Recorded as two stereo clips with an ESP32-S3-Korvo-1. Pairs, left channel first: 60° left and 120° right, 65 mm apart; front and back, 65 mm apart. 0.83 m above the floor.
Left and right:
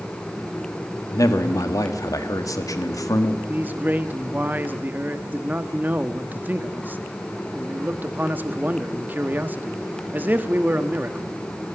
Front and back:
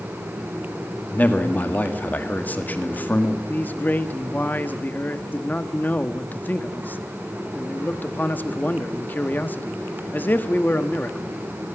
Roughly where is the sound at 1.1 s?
Ahead left.